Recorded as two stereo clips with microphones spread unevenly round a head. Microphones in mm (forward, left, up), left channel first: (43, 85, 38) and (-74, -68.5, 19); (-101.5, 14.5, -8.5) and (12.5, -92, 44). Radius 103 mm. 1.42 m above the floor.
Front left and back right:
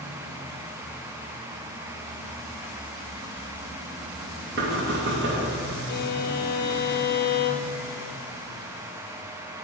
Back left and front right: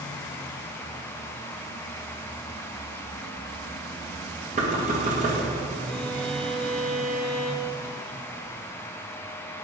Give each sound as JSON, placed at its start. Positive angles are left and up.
{"t": 4.6, "sound": "knocking", "azimuth_deg": -85, "distance_m": 2.0}
{"t": 5.9, "sound": "a violin", "azimuth_deg": 70, "distance_m": 0.5}